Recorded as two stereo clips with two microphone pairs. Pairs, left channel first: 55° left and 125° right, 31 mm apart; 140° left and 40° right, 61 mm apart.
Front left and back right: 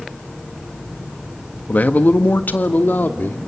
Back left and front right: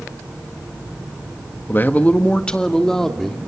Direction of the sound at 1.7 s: 85° left.